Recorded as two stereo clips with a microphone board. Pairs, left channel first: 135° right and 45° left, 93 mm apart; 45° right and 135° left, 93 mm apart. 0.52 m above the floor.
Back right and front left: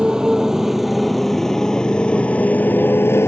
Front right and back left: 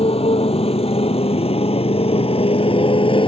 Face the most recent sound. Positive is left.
turn(degrees=-70)